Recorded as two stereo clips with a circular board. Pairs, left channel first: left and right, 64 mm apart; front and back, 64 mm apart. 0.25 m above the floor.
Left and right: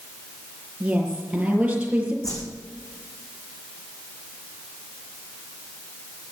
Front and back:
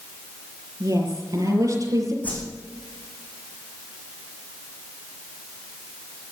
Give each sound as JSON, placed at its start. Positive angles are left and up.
{"t": 0.8, "sound": "a woman speaking", "azimuth_deg": -160, "distance_m": 6.0}
{"t": 2.2, "sound": "a whoosh", "azimuth_deg": 65, "distance_m": 3.5}